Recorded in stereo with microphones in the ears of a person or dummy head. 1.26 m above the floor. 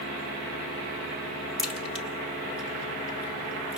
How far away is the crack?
About 2.0 m.